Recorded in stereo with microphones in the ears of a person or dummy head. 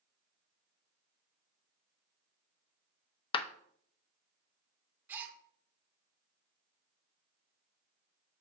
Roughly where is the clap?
Left.